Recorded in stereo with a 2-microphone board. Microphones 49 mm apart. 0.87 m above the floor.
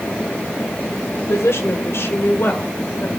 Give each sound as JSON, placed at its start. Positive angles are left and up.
{"t": 1.2, "sound": "a woman speaking", "side_deg": 70, "distance_m": 2.5}